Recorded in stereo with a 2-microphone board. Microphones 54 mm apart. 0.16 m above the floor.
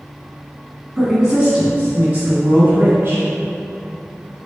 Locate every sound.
1.0 s a woman speaking: 5° right (ahead or behind), 1.5 m; by 3.3 s 45° right (ahead or behind), 2 m